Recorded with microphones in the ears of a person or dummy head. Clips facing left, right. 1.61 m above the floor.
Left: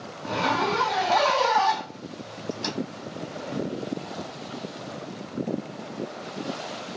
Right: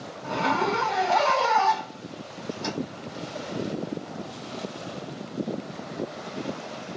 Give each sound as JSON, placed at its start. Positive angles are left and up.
{"t": 0.2, "sound": "a zipper", "side_deg": 25, "distance_m": 1.4}